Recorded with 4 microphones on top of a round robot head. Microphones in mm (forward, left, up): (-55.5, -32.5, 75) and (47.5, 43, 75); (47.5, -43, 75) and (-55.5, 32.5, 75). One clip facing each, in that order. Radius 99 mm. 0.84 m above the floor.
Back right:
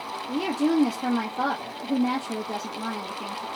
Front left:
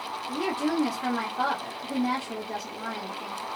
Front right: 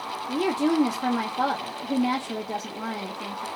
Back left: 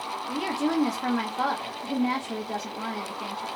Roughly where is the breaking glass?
No breaking glass in this recording.